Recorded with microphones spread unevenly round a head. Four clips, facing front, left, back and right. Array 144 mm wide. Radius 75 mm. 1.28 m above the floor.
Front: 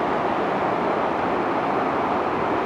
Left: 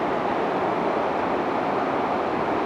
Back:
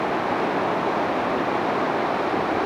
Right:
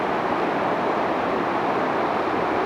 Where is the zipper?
No zipper in this recording.